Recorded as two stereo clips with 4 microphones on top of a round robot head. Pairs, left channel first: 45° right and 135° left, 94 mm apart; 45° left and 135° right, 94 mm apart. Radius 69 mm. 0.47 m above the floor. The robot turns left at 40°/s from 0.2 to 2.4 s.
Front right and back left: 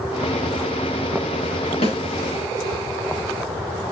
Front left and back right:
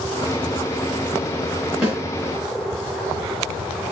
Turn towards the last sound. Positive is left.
turn(degrees=-75)